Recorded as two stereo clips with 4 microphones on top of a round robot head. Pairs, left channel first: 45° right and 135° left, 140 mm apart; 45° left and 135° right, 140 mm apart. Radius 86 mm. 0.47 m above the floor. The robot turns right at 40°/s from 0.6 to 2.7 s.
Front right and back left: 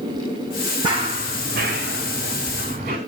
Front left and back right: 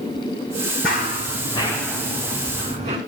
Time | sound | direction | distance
0.8 | running footsteps | 75° left | 2 m